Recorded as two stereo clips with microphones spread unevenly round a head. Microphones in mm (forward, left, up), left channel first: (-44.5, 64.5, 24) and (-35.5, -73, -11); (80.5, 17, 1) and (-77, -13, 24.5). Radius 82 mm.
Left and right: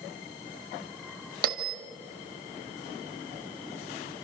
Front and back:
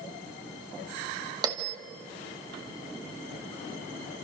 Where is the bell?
105° right, 2.5 m.